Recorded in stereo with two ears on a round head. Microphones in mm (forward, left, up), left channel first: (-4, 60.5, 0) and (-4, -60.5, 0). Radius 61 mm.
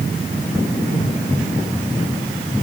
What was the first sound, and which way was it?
Only background noise.